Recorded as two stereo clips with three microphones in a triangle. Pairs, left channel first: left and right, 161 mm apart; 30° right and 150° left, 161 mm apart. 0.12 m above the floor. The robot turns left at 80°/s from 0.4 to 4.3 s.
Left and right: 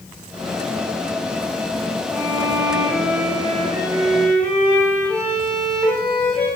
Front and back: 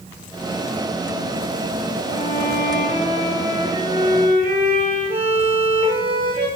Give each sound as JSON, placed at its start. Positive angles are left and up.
{"t": 2.1, "sound": "a violin", "azimuth_deg": -15, "distance_m": 7.5}